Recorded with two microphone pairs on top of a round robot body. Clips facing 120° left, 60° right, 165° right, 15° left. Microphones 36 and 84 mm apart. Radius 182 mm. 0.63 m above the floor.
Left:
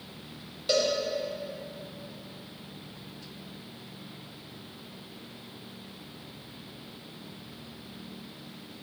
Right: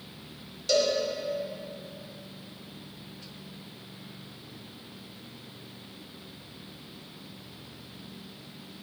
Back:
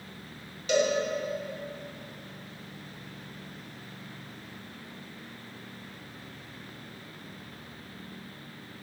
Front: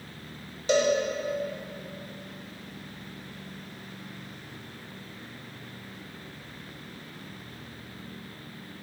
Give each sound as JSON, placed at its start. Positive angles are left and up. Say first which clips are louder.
{"t": 0.7, "sound": "a cowbell", "louder": "right 1 dB, front 2 dB", "azimuth_deg": 60, "distance_m": 1.4}